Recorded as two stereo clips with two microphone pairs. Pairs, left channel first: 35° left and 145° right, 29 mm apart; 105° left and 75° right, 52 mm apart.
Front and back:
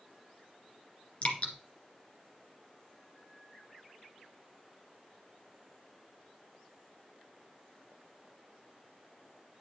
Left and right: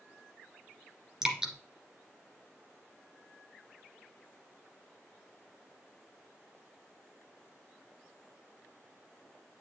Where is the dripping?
Straight ahead, 1.9 m.